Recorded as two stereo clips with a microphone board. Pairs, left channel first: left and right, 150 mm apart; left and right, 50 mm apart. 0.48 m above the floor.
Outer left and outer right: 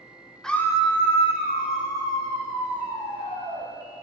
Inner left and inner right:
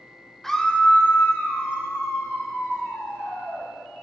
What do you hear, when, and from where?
0.4 s a scream: 5° left (ahead or behind), 1.1 m; by 3.7 s 50° left (ahead or behind), 4.5 m